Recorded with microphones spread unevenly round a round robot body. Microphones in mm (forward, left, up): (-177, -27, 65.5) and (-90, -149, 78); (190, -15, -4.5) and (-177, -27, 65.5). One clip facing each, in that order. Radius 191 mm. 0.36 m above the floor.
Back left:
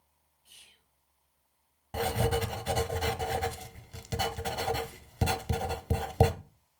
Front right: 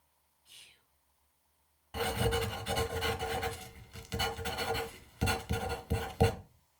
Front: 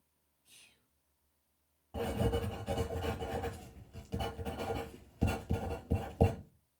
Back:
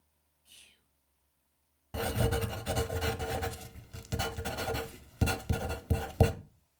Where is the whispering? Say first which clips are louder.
Back left 1 dB, back 1 dB; 85° left, 2.5 m.